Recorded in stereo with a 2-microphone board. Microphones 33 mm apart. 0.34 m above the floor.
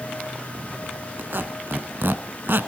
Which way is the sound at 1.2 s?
75° right (ahead or behind).